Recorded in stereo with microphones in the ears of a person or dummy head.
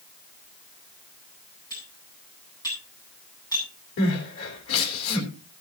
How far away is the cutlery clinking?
About 8 m.